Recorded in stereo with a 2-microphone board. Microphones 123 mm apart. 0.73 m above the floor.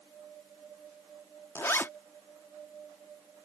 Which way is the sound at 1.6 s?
20° left (ahead or behind).